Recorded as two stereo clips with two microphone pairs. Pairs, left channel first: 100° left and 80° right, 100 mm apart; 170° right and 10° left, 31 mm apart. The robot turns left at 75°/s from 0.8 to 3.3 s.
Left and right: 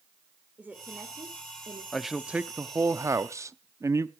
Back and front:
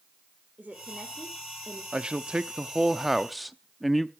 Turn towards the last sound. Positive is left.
turn(degrees=-80)